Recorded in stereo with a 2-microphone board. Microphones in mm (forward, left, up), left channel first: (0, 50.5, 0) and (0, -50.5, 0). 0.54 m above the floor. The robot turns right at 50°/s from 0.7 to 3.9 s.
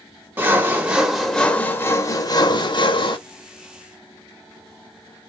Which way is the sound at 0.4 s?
25° right.